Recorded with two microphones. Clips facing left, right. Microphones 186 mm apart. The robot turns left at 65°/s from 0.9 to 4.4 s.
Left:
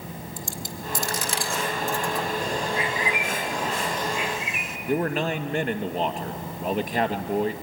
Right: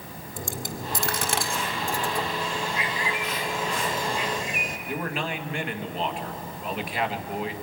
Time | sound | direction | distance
0.4 | a dropped coin | 60° right (ahead or behind) | 1.6 m
2.4 | a bird | 65° left | 1.9 m
4.9 | a man speaking | 45° left (ahead or behind) | 1.7 m